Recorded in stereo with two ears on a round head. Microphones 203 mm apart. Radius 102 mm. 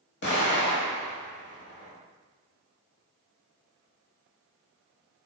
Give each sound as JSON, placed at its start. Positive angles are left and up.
{"t": 0.2, "sound": "an explosion", "side_deg": 50, "distance_m": 0.9}